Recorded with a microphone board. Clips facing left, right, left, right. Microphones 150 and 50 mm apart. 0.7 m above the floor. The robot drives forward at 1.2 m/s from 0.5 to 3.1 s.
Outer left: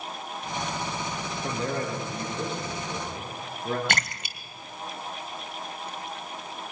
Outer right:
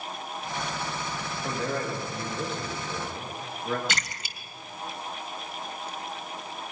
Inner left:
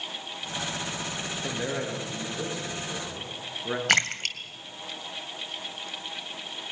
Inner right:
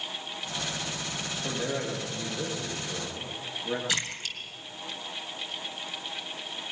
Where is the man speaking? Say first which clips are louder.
Even, even; 35° left (ahead or behind), 9.5 m; by 3.8 s 40° left (ahead or behind), 8 m.